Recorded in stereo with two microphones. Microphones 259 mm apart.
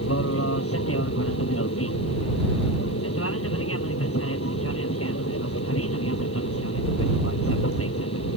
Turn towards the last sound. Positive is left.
turn(degrees=60)  # may be behind; listen again after turning